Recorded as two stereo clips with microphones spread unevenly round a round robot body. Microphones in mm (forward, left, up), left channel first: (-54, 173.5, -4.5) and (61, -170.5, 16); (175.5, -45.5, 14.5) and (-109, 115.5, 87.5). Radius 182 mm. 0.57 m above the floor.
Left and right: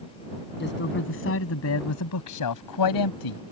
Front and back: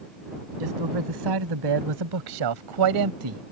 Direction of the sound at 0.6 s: 170° left.